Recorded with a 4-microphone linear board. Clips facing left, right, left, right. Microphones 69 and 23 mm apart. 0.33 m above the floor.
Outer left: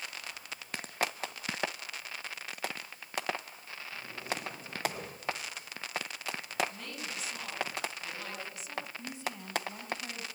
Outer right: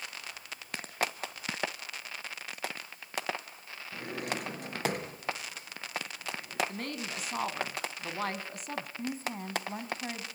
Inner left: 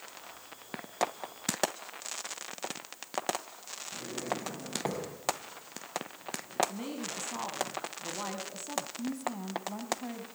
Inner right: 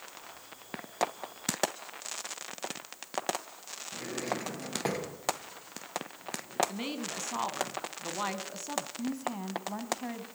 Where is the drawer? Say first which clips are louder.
Outer right 3 dB, inner right 1 dB; 80° right, 4 m.